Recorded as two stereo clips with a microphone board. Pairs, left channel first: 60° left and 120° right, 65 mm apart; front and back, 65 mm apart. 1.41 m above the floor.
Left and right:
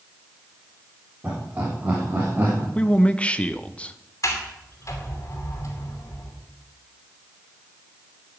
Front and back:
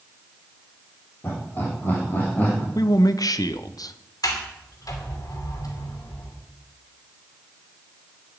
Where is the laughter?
50° right, 4 m; by 2.6 s 60° right, 2.5 m.